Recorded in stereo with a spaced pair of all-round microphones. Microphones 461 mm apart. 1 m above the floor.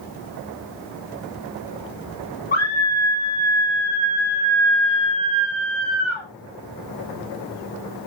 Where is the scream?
80° left, 2.0 m.